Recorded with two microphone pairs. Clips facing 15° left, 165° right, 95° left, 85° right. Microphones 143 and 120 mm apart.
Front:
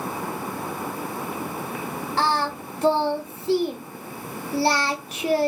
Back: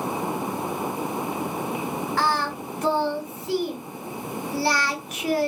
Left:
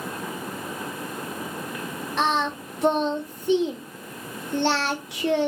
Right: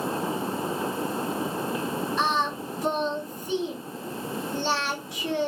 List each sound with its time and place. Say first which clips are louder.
2.2 s singing: front 3 dB, left 4 dB; 75° left, 0.8 m